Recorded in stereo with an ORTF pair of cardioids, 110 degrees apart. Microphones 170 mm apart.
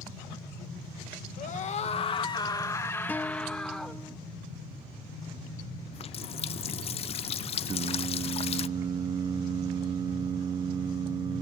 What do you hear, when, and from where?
1.4 s a scream: 50° left, 1.2 m; by 4.0 s straight ahead, 1.7 m
3.1 s a guitar: 10° left, 1.0 m
5.9 s a running tap: 35° left, 0.5 m
7.7 s singing: 25° right, 0.5 m